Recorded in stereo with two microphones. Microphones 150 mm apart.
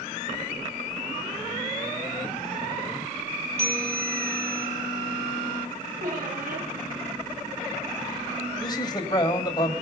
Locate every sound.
3.6 s a bell: 50° left (ahead or behind), 1.9 m
6.0 s a squeak: 75° right (ahead or behind), 7.5 m
8.6 s a man speaking: 30° left (ahead or behind), 1.9 m